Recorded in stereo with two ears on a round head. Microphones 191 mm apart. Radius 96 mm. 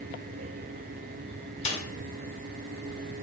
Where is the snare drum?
30° left (ahead or behind), 1.0 m.